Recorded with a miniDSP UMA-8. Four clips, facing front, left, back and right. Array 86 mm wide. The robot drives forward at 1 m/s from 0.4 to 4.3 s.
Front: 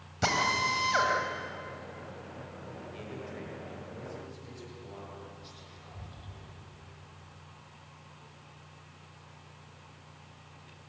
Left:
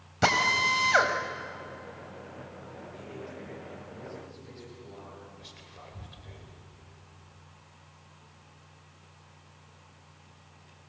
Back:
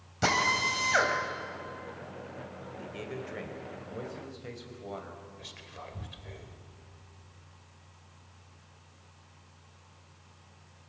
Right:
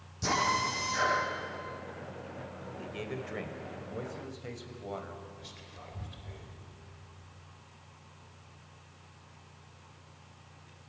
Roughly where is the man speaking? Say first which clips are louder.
Right 4 dB, back 4 dB; right.